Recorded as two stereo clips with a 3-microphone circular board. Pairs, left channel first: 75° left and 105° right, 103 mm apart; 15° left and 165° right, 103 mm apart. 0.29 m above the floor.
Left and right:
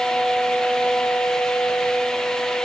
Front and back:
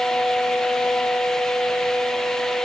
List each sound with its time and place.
Only background noise.